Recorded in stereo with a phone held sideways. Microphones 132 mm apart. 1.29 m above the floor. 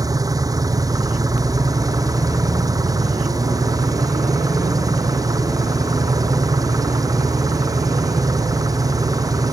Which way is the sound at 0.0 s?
25° right (ahead or behind).